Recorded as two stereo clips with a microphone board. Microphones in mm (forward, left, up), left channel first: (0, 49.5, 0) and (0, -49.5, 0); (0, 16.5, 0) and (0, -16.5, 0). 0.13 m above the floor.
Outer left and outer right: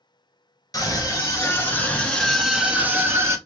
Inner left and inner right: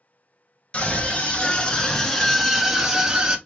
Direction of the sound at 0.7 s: 35° left (ahead or behind).